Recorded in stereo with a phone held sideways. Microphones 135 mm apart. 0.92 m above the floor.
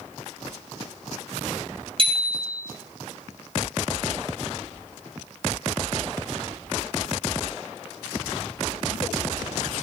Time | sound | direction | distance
2.0 | a bicycle bell | 40° right (ahead or behind) | 7 m